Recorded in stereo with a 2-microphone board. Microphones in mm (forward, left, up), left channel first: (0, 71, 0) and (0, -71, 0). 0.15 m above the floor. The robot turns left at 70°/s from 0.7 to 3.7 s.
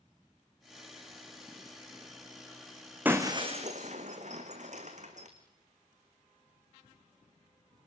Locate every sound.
3.0 s breaking glass: 10° right (ahead or behind), 3 m; by 5.3 s 55° right (ahead or behind), 3 m